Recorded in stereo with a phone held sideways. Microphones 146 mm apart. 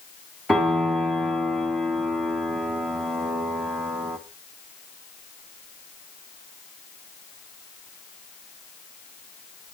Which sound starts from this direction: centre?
A piano, at 0.5 s.